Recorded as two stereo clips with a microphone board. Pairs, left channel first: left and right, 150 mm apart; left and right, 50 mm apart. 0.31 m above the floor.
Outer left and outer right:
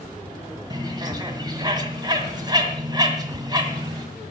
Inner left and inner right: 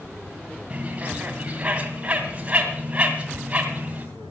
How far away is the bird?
About 2 m.